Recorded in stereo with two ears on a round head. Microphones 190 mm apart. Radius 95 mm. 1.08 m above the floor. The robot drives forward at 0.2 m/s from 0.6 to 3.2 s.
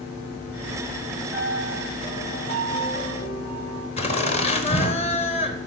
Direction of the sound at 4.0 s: 30° left (ahead or behind).